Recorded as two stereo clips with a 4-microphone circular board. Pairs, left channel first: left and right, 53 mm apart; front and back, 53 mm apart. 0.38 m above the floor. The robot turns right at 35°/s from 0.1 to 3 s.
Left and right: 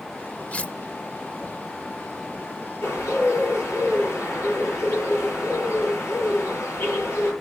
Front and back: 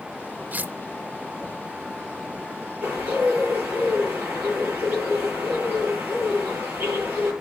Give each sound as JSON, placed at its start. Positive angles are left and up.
{"t": 0.5, "sound": "cutlery clinking", "azimuth_deg": 140, "distance_m": 0.5}
{"t": 2.8, "sound": "a bird", "azimuth_deg": 120, "distance_m": 9.5}